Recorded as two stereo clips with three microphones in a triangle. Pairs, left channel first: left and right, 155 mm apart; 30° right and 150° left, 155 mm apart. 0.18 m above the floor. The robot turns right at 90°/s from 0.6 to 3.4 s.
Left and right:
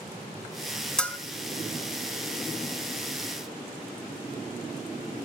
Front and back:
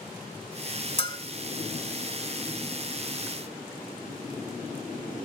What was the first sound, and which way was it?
A bell, 5° left.